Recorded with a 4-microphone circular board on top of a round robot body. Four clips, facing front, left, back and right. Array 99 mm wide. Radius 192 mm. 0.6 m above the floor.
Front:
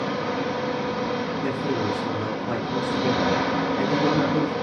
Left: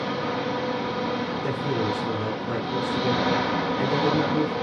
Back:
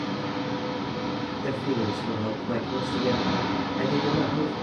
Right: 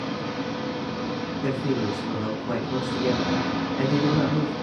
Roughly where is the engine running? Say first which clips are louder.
Left 3 dB, front 4 dB; ahead left.